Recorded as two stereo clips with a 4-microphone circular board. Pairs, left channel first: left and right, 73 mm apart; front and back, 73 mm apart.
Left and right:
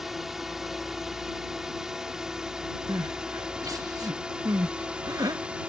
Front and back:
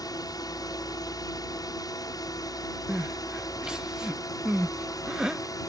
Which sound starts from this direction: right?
Crying, at 2.9 s.